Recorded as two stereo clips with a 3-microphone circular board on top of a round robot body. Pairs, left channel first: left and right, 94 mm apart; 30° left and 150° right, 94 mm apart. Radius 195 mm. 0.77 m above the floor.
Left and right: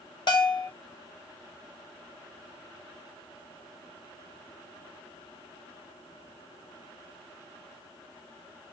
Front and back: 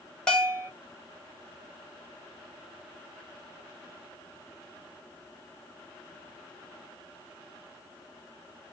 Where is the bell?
110° left, 1.5 m.